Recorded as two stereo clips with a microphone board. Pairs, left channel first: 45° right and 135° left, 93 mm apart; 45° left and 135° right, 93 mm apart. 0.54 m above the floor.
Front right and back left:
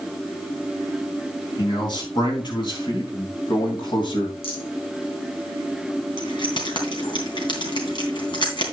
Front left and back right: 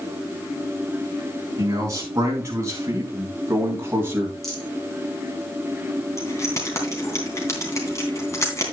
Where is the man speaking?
80° right, 4.5 m; by 4.3 s 70° right, 3 m.